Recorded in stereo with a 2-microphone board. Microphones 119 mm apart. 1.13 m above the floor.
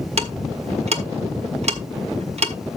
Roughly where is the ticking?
Right.